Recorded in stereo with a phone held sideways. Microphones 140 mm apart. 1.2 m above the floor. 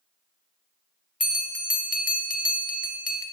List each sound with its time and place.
1.2 s a bell: 75° left (ahead or behind), 0.5 m